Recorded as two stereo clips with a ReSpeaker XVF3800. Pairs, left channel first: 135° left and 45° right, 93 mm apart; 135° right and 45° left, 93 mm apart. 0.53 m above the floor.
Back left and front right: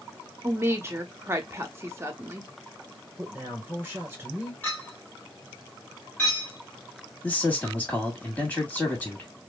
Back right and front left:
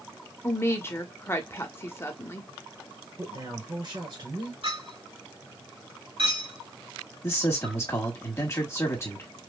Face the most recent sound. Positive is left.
turn(degrees=-165)